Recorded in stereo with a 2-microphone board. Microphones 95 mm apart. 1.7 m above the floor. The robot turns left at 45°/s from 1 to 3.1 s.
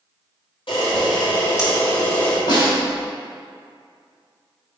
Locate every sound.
0.7 s a camera shutter: 75° left, 2.5 m; by 2.4 s 10° left, 2.5 m
2.5 s a snare drum: 50° left (ahead or behind), 2.5 m; by 2.8 s 40° left (ahead or behind), 2.5 m